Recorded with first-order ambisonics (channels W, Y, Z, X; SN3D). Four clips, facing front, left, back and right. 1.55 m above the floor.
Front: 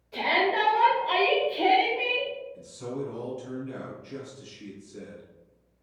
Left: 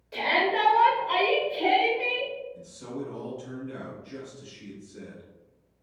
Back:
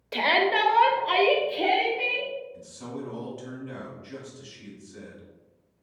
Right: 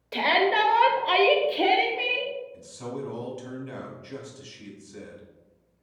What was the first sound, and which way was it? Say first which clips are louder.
A shout: right 3 dB, back 2 dB; 150° right.